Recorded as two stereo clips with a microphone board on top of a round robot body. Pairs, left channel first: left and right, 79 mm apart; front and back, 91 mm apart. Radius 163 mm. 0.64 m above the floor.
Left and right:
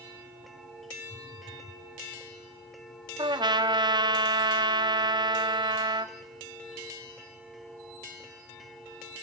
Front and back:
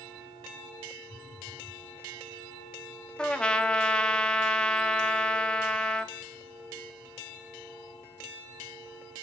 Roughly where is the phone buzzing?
Ahead left.